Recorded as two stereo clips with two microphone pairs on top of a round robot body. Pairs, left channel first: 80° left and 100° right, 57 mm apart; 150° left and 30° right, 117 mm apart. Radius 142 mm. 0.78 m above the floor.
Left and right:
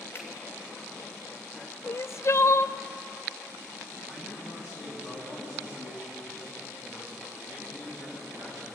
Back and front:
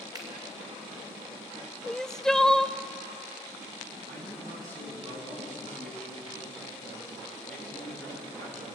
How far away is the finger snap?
About 4 m.